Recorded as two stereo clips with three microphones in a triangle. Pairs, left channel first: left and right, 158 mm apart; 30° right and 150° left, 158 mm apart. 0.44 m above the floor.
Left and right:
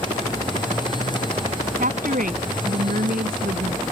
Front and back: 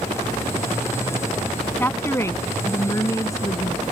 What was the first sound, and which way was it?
A woman speaking, 105° right.